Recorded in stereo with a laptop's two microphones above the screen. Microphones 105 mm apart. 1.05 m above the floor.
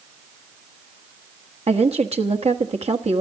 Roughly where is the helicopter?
I don't hear a helicopter.